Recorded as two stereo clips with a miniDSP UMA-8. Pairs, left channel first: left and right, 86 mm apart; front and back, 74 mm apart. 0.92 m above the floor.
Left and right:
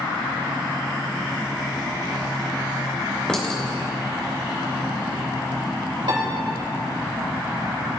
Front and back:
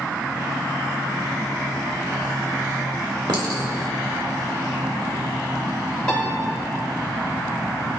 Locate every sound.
3.3 s a clink: 170° left, 2 m
6.1 s a piano: 80° right, 2.5 m